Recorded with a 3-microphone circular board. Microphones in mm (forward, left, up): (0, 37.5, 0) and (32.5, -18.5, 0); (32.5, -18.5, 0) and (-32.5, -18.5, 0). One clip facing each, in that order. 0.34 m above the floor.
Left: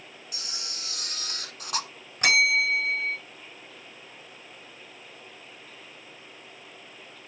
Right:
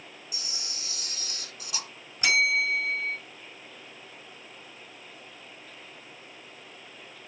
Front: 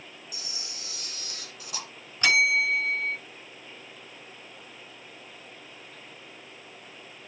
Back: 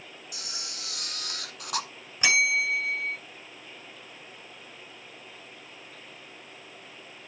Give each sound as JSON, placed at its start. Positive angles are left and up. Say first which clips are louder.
{"t": 0.3, "sound": "a camera shutter", "louder": "left 3 dB, back 2 dB", "azimuth_deg": 155, "distance_m": 1.3}
{"t": 2.2, "sound": "a bell", "louder": "left 2 dB, front 2 dB", "azimuth_deg": 105, "distance_m": 3.0}